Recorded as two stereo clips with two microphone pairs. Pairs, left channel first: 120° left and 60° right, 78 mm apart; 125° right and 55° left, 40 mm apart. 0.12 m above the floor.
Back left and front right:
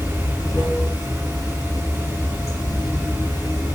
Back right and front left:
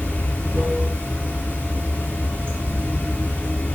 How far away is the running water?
About 1.6 m.